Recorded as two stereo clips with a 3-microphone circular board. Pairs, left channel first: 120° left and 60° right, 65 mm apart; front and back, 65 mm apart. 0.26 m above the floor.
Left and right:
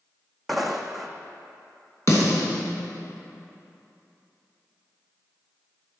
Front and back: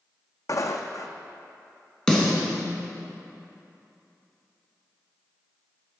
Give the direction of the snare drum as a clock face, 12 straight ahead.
9 o'clock.